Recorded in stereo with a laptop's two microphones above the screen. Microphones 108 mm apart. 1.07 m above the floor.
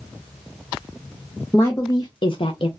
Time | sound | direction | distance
1.5 | a woman speaking | 15° left (ahead or behind) | 0.6 m